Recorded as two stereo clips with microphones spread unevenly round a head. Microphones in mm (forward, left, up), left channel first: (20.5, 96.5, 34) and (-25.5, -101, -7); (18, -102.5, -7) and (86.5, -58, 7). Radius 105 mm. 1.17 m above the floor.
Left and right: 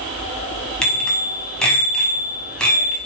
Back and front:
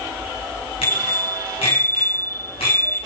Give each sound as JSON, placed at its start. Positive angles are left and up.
{"t": 0.8, "sound": "a bicycle bell", "azimuth_deg": 160, "distance_m": 6.0}